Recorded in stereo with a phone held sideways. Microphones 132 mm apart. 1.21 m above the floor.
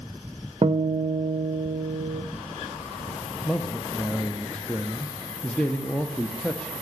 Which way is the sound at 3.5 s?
10° left (ahead or behind).